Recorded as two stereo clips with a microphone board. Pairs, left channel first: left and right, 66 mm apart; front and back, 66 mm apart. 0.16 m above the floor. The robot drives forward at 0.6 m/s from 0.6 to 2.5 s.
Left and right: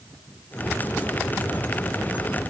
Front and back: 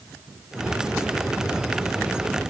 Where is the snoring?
I don't hear snoring.